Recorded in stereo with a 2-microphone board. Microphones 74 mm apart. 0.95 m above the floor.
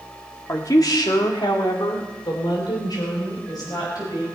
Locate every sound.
0.5 s a woman speaking: 45° left (ahead or behind), 2 m; by 4.3 s 55° left (ahead or behind), 5.5 m